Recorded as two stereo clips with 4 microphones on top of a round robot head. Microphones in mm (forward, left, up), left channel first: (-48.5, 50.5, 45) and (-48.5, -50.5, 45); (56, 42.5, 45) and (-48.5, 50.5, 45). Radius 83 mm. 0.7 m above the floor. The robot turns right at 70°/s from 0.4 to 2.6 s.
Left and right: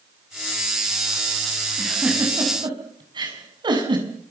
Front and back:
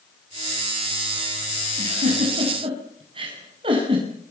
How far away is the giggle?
About 6.5 m.